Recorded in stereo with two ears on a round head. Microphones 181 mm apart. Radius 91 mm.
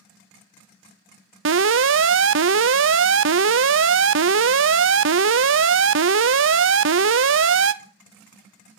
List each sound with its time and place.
1.4 s an alarm: 65° right (ahead or behind), 0.7 m